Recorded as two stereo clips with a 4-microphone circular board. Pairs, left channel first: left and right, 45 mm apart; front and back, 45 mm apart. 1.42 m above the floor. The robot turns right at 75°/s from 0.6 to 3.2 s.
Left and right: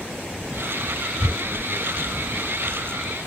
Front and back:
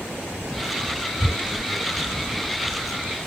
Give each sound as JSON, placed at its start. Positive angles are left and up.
{"t": 1.2, "sound": "tearing paper", "azimuth_deg": -80, "distance_m": 2.5}